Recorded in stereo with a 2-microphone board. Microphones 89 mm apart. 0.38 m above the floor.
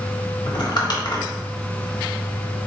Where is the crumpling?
55° left (ahead or behind), 1.1 m.